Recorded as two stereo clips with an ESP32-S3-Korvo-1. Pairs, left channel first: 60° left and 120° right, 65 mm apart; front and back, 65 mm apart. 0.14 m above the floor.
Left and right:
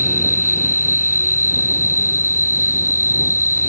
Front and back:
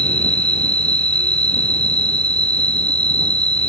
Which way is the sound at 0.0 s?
70° right.